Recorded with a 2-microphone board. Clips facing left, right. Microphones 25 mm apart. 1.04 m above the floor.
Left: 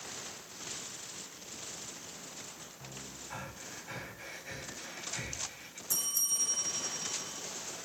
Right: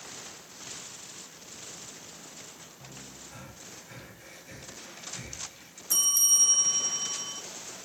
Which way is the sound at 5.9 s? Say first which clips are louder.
Right 10 dB; 70° right (ahead or behind).